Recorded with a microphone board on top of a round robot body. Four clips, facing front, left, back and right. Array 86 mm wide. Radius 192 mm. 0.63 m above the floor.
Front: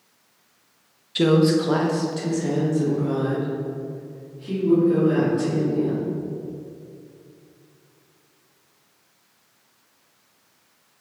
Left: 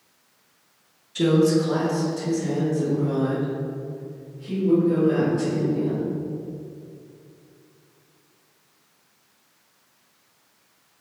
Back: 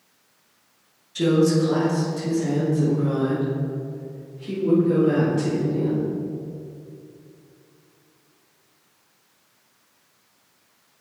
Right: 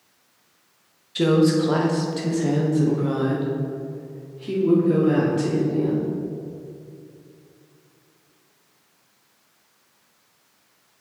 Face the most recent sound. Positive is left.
turn(degrees=-105)